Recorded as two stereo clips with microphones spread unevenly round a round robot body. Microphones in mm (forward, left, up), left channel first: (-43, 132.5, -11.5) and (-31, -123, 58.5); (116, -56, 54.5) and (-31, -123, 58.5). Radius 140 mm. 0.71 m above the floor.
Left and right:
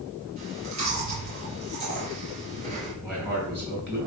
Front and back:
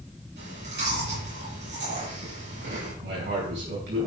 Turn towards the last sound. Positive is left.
turn(degrees=-170)